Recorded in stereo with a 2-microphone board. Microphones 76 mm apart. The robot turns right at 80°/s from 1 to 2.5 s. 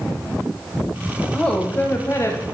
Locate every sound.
1.3 s a woman speaking: 15° left, 1.0 m; by 2.4 s 105° left, 1.0 m